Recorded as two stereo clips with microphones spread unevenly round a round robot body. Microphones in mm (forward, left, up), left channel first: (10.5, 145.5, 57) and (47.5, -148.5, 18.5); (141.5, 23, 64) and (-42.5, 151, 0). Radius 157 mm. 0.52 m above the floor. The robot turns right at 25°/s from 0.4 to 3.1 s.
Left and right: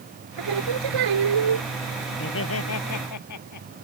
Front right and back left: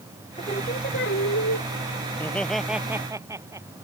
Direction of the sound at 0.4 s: 105° right.